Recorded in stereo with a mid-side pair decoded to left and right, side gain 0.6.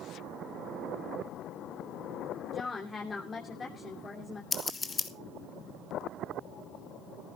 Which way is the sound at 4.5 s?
25° left.